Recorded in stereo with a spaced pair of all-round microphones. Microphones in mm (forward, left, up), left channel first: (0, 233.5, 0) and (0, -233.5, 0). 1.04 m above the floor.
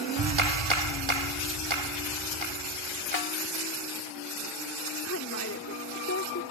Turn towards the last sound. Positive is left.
turn(degrees=30)  # may be behind; listen again after turning